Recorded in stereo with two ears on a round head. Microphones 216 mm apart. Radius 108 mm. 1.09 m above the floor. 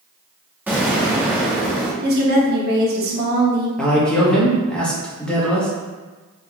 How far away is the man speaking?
About 1.1 m.